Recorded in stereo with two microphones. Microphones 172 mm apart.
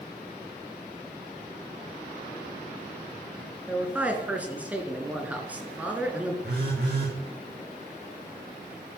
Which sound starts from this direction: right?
A phone buzzing, at 6.4 s.